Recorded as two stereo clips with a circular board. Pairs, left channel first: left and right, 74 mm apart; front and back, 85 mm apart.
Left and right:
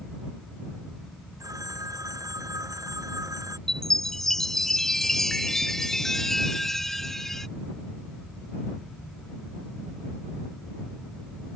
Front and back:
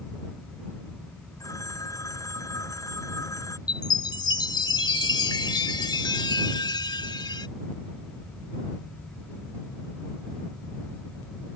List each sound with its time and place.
1.4 s a phone ringing: 50° right
3.7 s a chime: 5° left